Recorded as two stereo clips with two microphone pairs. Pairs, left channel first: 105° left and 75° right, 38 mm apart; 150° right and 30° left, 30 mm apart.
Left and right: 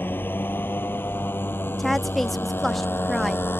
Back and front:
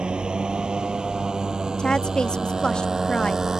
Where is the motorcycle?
85° left; by 3.6 s 100° left.